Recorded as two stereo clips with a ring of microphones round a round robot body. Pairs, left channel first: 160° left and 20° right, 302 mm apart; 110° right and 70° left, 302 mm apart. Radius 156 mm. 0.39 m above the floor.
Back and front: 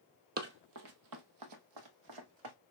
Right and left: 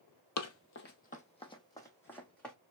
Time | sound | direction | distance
0.4 | running footsteps | 80° right | 0.6 m